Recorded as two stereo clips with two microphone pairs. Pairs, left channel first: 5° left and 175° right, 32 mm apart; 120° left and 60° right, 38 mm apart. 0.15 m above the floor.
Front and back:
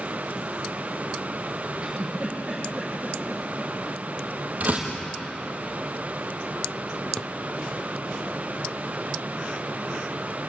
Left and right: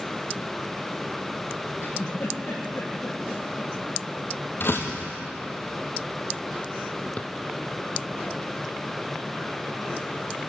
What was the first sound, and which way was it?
A giggle, 130° left.